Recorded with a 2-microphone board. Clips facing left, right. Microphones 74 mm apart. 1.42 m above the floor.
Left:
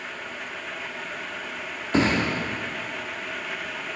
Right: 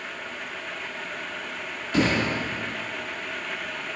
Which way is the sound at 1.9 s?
35° left (ahead or behind).